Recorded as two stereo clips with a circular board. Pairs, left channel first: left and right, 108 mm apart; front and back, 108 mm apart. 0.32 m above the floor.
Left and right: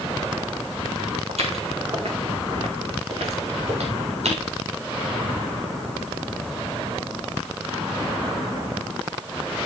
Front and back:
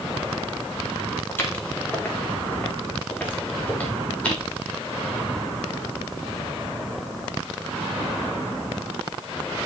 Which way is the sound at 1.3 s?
70° right.